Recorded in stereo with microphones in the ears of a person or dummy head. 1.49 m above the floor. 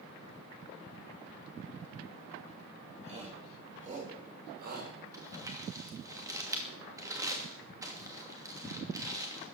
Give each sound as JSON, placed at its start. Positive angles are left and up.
{"t": 3.0, "sound": "a shout", "side_deg": -30, "distance_m": 5.0}
{"t": 5.1, "sound": "crumpling", "side_deg": -15, "distance_m": 2.5}